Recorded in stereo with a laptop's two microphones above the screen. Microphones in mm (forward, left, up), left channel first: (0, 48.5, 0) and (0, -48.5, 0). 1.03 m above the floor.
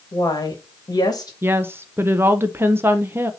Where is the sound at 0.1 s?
40° left (ahead or behind), 1.6 m.